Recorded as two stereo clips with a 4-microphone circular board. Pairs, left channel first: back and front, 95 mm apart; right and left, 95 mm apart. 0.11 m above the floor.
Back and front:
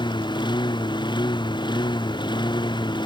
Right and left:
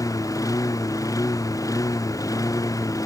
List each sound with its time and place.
0.0 s a lawn mower: 145° right